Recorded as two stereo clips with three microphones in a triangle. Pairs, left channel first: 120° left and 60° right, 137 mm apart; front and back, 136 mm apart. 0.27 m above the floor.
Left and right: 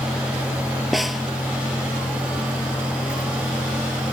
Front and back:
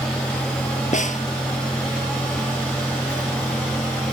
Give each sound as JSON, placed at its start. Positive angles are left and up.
{"t": 0.9, "sound": "a snare drum", "azimuth_deg": 30}